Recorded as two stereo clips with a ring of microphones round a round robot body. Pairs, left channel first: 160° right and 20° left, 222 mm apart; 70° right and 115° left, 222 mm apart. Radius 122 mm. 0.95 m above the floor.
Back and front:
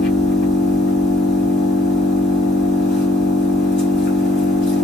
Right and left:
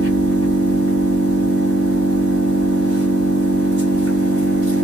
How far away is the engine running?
About 1.6 m.